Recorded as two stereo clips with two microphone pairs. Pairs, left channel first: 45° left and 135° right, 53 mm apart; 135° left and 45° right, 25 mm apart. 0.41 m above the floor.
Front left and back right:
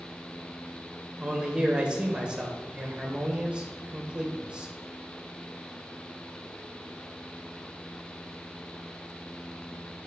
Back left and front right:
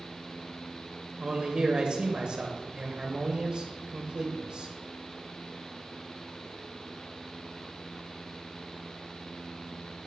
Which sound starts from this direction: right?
A man speaking, at 1.2 s.